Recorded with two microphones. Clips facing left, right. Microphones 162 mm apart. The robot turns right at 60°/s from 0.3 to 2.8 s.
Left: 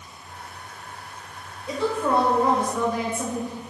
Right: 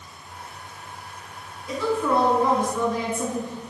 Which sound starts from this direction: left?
A woman speaking, at 1.7 s.